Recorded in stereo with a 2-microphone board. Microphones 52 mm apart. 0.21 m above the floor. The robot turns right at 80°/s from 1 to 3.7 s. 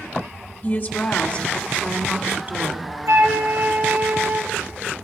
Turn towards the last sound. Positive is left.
turn(degrees=-35)